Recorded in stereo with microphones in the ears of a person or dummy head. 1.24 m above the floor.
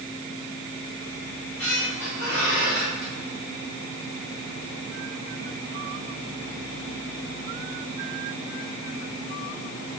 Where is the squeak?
70° left (ahead or behind), 4 m.